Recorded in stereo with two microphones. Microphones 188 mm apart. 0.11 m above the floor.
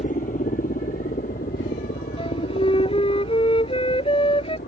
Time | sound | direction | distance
0.0 | a helicopter | 45° left (ahead or behind) | ?
2.2 | a flute | 30° left (ahead or behind) | ?